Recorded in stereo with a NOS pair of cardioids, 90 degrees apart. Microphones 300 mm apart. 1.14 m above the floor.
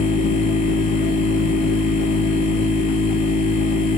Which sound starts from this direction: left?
A machine running, at 0.0 s.